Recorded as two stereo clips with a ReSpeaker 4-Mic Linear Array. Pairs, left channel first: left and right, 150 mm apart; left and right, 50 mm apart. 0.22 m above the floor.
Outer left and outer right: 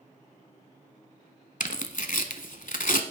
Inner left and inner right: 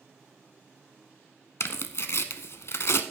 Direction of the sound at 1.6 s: 60° left (ahead or behind).